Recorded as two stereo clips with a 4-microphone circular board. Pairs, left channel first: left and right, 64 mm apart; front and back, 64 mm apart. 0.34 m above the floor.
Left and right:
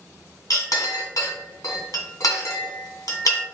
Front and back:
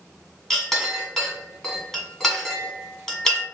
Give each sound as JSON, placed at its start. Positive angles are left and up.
{"t": 0.5, "sound": "a clink", "azimuth_deg": 85, "distance_m": 1.6}